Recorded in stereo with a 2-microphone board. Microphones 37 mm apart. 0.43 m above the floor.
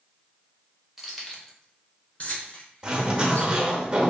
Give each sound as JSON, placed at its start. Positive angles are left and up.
{"t": 1.0, "sound": "keys jangling", "side_deg": -5, "distance_m": 0.9}
{"t": 2.8, "sound": "a zipper", "side_deg": -25, "distance_m": 0.8}